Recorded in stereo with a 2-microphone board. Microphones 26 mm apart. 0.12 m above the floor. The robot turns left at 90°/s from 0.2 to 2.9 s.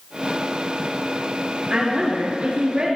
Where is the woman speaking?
30° right, 2.5 m; by 3.0 s 140° right, 2.5 m.